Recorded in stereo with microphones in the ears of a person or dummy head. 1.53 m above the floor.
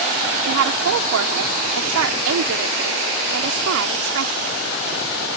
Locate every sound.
0.5 s a woman speaking: 65° right (ahead or behind)